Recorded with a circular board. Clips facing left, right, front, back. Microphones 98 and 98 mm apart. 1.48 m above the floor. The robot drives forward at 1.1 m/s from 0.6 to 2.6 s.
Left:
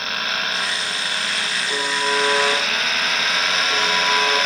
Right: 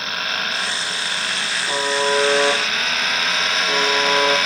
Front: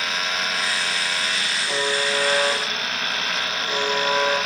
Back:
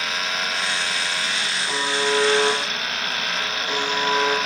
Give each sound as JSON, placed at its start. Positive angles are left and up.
{"t": 1.7, "sound": "a buzzer", "azimuth_deg": -100, "distance_m": 5.0}